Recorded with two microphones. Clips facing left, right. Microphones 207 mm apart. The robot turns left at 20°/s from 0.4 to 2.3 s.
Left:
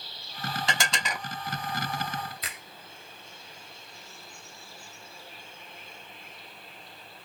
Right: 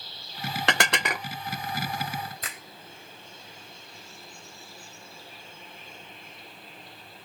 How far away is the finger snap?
About 2.5 m.